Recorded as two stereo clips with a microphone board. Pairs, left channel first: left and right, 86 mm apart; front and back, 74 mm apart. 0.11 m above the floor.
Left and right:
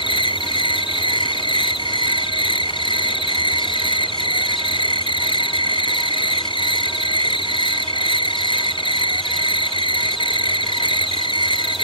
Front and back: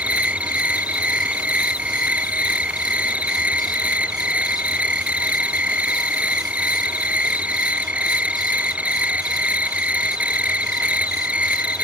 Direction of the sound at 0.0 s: 105° left.